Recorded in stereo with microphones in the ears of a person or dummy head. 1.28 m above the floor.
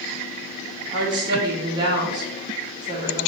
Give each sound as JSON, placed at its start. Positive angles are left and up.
{"t": 0.9, "sound": "a woman speaking", "side_deg": -25, "distance_m": 0.7}